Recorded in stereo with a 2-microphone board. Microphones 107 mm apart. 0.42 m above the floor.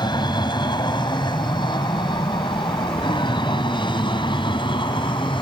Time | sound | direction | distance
0.0 | an aircraft | 40° left (ahead or behind) | ?